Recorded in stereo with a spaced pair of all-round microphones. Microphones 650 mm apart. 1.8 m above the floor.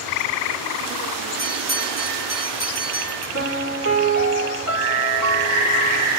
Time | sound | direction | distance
1.4 | a bell | 25° right (ahead or behind) | 5.5 m
3.3 | a piano | 20° right (ahead or behind) | 7 m